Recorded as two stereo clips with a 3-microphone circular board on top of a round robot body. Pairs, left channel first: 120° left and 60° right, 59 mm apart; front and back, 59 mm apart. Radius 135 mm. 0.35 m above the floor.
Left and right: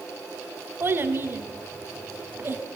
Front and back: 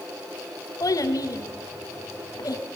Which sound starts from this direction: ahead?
A child speaking, at 0.8 s.